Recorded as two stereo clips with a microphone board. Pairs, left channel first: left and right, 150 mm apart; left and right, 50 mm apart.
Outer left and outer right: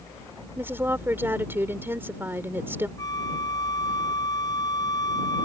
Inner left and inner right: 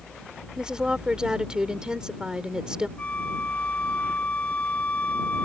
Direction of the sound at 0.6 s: 15° right (ahead or behind).